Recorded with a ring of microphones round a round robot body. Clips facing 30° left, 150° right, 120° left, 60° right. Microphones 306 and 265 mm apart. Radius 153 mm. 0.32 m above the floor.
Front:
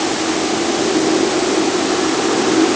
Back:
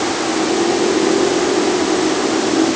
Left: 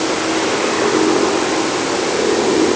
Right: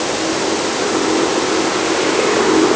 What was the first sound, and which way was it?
Only background noise.